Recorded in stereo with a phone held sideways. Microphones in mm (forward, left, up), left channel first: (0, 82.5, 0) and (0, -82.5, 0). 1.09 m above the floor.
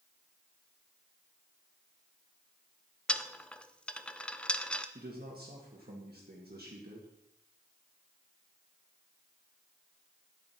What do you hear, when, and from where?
3.1 s a dropped coin: 5° left (ahead or behind), 0.5 m
5.0 s a man speaking: 70° right (ahead or behind), 1.9 m